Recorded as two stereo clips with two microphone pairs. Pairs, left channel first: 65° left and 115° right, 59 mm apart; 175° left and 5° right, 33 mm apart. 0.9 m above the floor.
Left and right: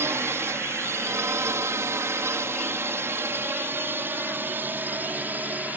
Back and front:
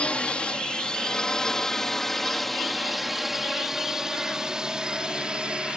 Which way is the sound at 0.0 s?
140° right.